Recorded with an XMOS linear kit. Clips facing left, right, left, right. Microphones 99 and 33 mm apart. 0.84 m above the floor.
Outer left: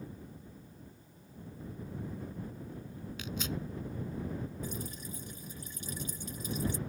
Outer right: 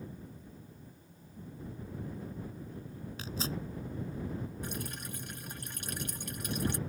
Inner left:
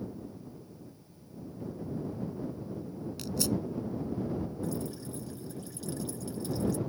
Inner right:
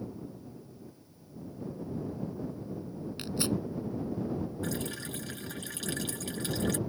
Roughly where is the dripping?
Right.